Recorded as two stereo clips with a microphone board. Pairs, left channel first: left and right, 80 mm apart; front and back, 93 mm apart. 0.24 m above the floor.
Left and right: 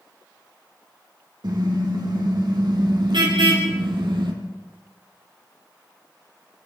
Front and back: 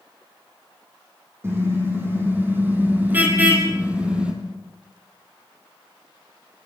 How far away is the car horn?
About 7 m.